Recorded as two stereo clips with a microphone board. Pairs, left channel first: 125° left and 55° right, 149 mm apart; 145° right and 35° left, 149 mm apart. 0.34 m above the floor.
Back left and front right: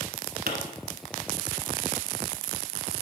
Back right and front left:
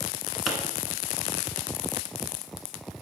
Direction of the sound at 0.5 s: 55° right.